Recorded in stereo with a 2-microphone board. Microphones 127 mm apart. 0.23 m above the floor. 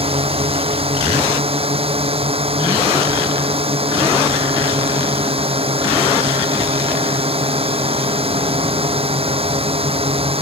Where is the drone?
50° right (ahead or behind).